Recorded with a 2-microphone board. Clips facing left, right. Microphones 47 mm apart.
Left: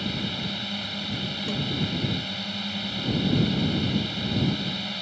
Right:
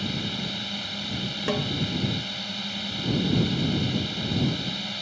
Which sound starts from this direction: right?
A snare drum, at 1.5 s.